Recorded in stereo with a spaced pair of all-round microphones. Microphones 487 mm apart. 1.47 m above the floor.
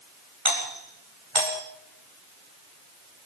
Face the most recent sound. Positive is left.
turn(degrees=-80)